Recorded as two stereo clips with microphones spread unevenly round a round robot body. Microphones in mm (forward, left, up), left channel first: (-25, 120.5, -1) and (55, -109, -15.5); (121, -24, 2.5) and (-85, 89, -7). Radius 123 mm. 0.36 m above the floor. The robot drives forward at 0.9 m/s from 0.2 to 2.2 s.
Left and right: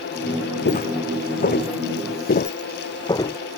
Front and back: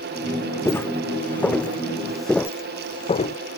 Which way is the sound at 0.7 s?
50° left.